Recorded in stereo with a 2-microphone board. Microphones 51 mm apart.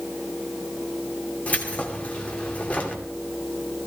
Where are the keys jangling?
25° left (ahead or behind), 2.5 m.